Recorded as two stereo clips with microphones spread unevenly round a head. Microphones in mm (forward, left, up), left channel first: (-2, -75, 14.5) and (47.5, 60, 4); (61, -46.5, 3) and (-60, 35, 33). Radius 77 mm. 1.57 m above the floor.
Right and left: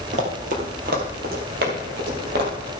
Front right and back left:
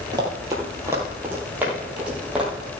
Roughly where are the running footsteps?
Left.